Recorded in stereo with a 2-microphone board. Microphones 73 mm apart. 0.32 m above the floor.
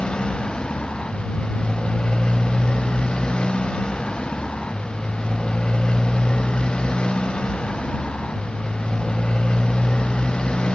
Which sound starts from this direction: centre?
A motorcycle, at 0.0 s.